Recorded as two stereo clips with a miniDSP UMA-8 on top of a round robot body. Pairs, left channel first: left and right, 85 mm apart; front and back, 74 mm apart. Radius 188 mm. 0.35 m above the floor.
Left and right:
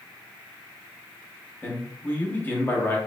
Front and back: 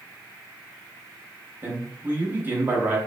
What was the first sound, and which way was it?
A man speaking, 140° left.